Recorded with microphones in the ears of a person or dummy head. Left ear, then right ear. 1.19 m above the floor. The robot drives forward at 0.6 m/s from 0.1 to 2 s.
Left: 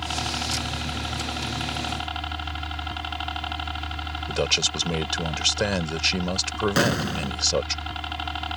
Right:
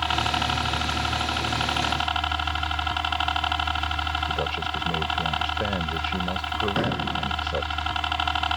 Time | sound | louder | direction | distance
0.0 | a helicopter | right 4 dB | 40° right (ahead or behind) | ?
4.3 | a man speaking | left 3 dB | 80° left | ?
6.8 | an explosion | left 2 dB | 65° left (ahead or behind) | ?